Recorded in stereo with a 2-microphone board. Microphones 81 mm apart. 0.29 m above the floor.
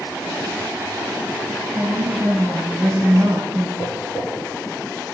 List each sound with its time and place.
1.7 s a woman speaking: 25° right (ahead or behind), 1.5 m
3.8 s tapping: 5° right (ahead or behind), 2.5 m